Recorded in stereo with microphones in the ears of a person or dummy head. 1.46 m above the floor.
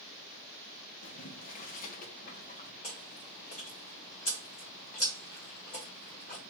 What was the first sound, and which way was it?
Boiling, 45° left (ahead or behind).